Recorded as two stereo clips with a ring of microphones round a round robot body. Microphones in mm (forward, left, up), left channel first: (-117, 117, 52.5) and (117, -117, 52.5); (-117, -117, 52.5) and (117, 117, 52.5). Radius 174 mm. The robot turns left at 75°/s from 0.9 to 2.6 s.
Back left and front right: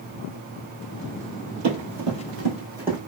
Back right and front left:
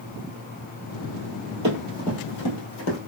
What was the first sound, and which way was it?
Running footsteps, 5° right.